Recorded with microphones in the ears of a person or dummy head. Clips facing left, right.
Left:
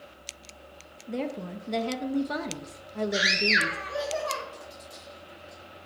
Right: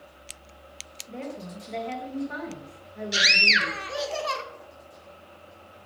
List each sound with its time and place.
1.1 s a woman speaking: 55° left (ahead or behind), 0.7 m
3.1 s a scream: 45° right (ahead or behind), 1.2 m